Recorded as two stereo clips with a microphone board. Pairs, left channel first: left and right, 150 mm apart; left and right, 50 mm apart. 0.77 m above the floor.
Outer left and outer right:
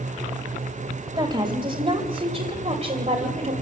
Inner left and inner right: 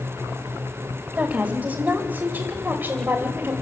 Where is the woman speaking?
30° right (ahead or behind), 3 m; by 3.5 s 55° right (ahead or behind), 3 m.